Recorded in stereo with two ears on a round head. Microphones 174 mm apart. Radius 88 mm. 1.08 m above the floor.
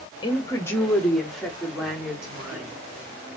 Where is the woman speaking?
25° left (ahead or behind), 1.4 m; by 2.8 s 10° right (ahead or behind), 3.5 m.